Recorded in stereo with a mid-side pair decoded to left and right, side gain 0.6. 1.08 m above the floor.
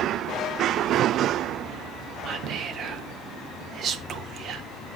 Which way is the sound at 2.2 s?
50° right.